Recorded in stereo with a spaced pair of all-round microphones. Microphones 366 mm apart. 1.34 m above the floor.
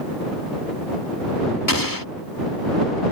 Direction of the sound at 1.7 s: 65° left (ahead or behind).